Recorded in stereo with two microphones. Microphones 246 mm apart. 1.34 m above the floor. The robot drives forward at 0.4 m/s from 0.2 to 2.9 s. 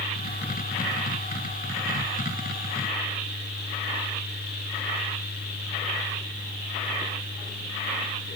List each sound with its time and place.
Only background noise.